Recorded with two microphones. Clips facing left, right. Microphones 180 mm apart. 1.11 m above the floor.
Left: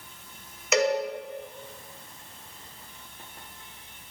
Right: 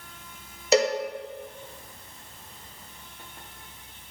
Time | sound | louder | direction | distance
0.7 | a cowbell | right 2 dB | 35° right (ahead or behind) | 0.5 m